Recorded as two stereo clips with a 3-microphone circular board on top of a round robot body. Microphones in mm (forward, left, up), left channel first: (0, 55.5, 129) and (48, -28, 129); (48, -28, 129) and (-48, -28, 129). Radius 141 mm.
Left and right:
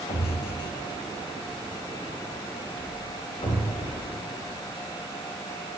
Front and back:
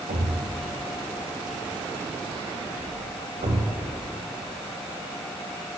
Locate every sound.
0.1 s a thud: 170° left, 1.9 m